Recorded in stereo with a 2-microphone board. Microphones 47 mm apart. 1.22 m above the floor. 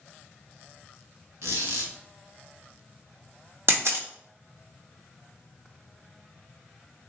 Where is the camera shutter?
65° right (ahead or behind), 0.7 m.